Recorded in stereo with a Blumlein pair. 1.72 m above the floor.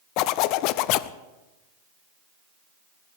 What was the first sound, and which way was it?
A zipper, 40° left.